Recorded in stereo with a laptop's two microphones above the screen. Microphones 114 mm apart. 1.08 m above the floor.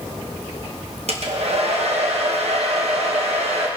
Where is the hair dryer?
60° right (ahead or behind), 1.2 m.